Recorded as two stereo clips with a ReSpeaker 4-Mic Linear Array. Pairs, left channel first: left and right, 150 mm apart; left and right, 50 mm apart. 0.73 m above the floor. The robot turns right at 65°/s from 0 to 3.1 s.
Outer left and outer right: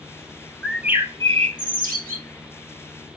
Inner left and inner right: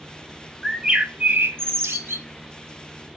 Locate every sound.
0.6 s a bird: 175° left, 1.4 m; by 2.2 s 80° right, 1.4 m